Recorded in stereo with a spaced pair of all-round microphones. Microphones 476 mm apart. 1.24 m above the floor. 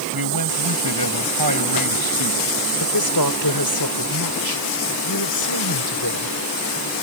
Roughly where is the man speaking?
Right.